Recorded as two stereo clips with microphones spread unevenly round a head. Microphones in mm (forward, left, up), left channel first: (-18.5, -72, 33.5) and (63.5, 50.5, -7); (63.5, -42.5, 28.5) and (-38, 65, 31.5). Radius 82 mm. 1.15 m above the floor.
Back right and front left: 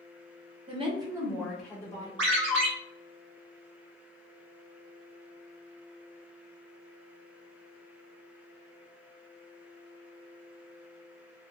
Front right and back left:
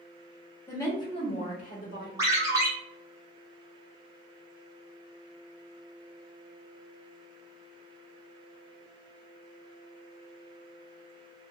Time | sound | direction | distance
0.7 | a woman speaking | 25° left | 1.3 m
2.2 | a ringtone | 65° left | 0.9 m